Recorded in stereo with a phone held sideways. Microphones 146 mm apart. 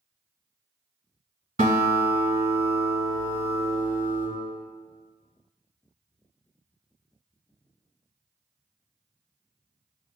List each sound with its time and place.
1.6 s a guitar: 70° right (ahead or behind), 1.9 m